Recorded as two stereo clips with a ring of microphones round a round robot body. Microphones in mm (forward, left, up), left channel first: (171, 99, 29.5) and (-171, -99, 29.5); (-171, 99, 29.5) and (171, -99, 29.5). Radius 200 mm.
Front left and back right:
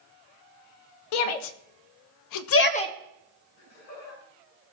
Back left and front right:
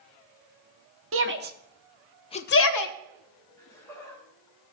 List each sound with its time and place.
1.1 s a shout: 30° left, 1.6 m; by 3.0 s 115° left, 0.9 m
3.6 s laughter: 65° left, 7.5 m